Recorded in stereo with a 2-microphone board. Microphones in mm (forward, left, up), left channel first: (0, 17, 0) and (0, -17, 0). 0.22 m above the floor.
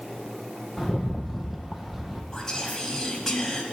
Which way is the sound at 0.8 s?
5° right (ahead or behind).